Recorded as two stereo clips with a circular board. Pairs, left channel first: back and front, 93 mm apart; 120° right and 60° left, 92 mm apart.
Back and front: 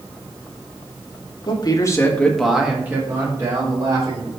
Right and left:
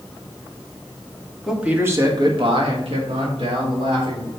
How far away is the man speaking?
About 1.6 m.